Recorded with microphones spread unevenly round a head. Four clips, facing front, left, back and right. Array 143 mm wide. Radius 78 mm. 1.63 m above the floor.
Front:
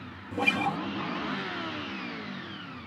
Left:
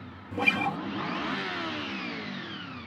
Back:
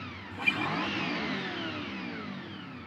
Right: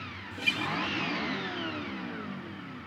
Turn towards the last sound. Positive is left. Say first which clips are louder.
# left 5 dB, front 4 dB
turn(degrees=45)